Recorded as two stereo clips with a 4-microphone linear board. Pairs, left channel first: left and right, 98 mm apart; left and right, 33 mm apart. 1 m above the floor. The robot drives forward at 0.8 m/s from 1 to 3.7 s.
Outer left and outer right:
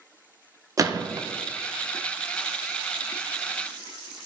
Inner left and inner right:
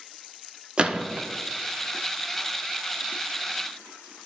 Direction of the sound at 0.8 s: 35° right (ahead or behind).